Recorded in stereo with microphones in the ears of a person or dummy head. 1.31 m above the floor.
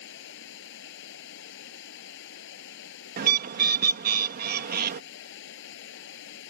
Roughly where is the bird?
Right.